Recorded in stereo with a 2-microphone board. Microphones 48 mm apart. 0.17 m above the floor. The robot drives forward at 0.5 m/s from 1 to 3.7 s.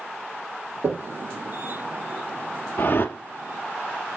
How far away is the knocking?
About 3 m.